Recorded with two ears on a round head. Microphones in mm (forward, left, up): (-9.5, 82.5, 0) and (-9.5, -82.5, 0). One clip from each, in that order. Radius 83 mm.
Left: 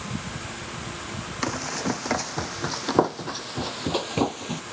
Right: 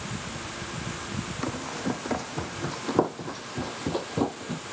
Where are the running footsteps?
50° left (ahead or behind); by 4.6 s 55° left (ahead or behind).